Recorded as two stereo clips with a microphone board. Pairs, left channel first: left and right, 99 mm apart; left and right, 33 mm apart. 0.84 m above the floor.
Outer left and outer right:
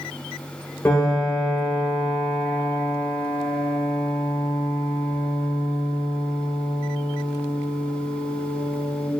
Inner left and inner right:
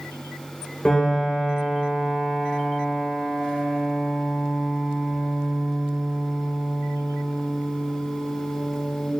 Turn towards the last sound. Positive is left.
turn(degrees=30)  # may be behind; listen again after turning